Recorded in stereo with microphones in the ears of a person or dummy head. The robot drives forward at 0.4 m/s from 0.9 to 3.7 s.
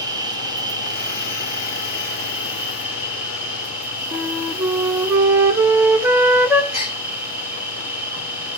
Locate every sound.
0.0 s an insect: 20° right (ahead or behind), 0.9 m; by 8.6 s 10° right (ahead or behind), 1.9 m
4.1 s a flute: 15° right (ahead or behind), 1.1 m
6.7 s a gasp: 55° left (ahead or behind), 3 m